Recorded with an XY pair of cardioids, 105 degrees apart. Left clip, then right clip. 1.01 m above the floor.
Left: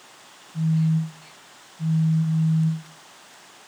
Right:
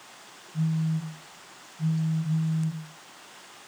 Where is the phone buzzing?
15° right, 3 m.